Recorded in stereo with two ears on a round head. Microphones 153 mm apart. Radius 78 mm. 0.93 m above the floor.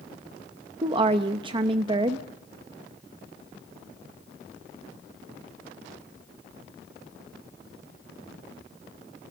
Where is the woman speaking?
30° right (ahead or behind), 0.8 m.